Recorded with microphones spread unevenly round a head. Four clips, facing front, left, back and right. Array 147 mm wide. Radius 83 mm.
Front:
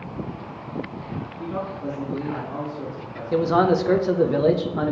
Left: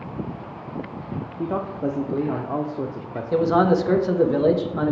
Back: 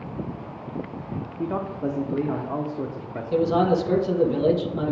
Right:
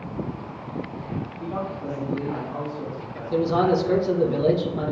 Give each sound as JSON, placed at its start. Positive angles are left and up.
{"t": 1.4, "sound": "a man speaking", "azimuth_deg": 95, "distance_m": 0.8}
{"t": 3.3, "sound": "a man speaking", "azimuth_deg": 35, "distance_m": 1.2}